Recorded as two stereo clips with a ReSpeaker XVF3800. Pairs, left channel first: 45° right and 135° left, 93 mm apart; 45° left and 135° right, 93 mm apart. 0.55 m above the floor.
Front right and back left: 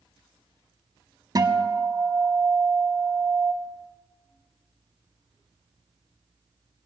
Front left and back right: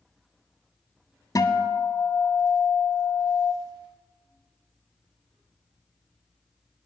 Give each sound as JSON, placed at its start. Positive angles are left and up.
{"t": 1.4, "sound": "a guitar", "azimuth_deg": 90, "distance_m": 0.8}